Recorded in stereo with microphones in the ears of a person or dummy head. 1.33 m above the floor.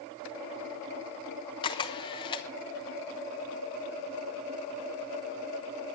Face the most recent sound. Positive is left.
turn(degrees=25)  # may be behind; listen again after turning